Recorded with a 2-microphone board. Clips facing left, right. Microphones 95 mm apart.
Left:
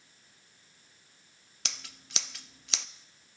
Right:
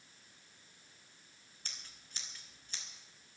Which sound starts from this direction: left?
Scissors, at 1.6 s.